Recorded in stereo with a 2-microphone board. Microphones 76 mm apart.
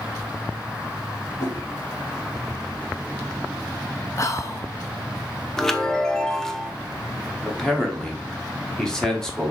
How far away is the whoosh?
About 2.5 m.